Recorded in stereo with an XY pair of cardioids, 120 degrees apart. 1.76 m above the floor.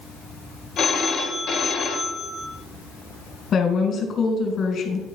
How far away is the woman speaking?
About 2 m.